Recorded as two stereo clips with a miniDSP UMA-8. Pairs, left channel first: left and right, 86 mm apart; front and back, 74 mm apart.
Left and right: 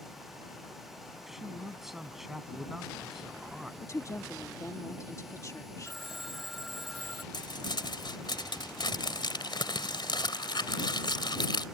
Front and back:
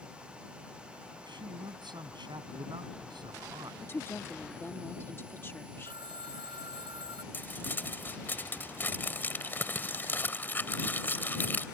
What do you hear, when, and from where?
1.3 s a man speaking: 175° right
3.8 s a woman speaking: 50° left
5.8 s a phone ringing: straight behind
7.3 s crumpling: 65° left